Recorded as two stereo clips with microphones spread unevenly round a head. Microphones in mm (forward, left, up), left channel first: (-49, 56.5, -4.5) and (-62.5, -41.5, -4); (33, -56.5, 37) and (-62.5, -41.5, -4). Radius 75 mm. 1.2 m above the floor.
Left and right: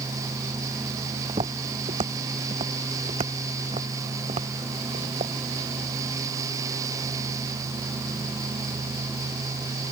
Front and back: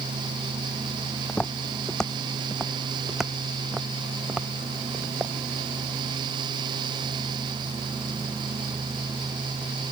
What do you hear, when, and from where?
1.3 s footsteps: 65° right; by 5.3 s 110° right